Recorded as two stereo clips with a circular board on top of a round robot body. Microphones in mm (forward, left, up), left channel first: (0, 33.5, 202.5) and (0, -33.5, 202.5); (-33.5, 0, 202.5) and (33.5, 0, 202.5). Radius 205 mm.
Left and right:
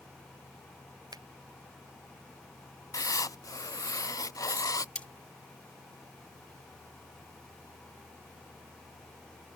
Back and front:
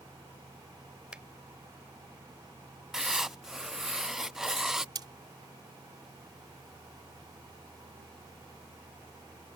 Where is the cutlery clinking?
15° left.